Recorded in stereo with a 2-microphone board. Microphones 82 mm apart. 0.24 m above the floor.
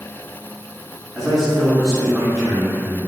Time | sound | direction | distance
1.1 | a man speaking | 5° right (ahead or behind) | 1.2 m